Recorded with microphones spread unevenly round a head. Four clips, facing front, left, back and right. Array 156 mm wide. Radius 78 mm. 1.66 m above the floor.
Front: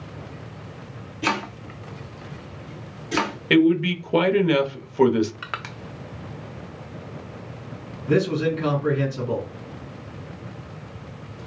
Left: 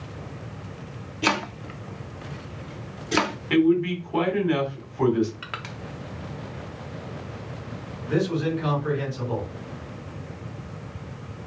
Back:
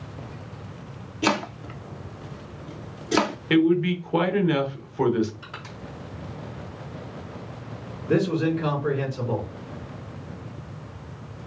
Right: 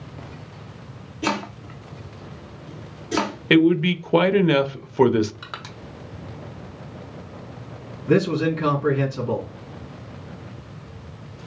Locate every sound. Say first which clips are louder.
1.2 s chopping: even, back 2 dB; 175° right, 0.6 m
3.5 s a man speaking: right 3 dB, front 2 dB; 70° right, 0.7 m
5.4 s crushing: left 1 dB, front 7 dB; 5° right, 0.6 m
8.1 s a man speaking: right 5 dB, front 1 dB; 70° right, 3.5 m